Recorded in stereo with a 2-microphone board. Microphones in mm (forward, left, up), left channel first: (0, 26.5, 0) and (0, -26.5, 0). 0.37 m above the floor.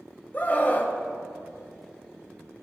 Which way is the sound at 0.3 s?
30° left (ahead or behind).